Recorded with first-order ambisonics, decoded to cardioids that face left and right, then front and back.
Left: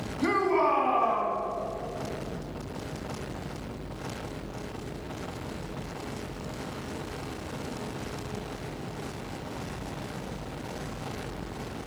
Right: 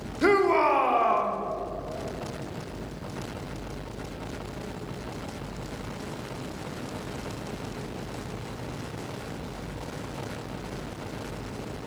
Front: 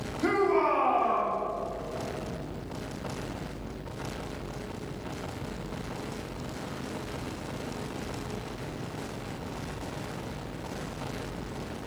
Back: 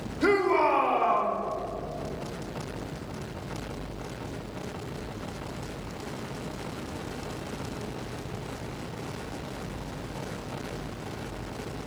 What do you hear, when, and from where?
0.2 s a shout: 110° right, 1.2 m